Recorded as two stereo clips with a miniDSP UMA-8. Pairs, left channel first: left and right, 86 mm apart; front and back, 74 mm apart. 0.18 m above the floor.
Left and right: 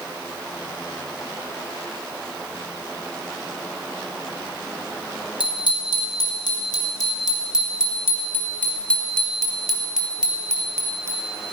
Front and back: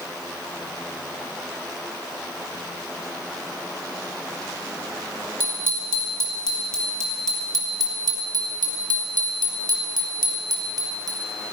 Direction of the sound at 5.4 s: 120° left.